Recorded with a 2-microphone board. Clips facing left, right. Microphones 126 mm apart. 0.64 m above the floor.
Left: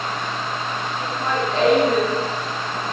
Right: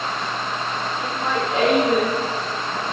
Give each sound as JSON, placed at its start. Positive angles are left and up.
{"t": 1.0, "sound": "laughter", "side_deg": -5, "distance_m": 9.0}